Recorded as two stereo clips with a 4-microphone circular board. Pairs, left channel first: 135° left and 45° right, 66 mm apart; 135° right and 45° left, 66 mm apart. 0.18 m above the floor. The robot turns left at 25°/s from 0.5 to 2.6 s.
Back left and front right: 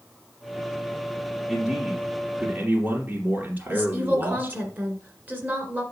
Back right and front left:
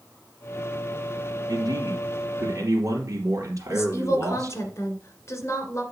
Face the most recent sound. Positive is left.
turn(degrees=-100)